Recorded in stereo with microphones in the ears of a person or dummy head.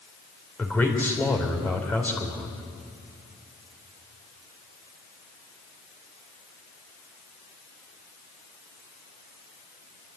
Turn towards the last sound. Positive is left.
turn(degrees=10)  # may be behind; listen again after turning